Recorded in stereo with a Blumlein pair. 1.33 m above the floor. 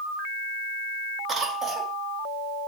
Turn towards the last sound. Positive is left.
turn(degrees=-15)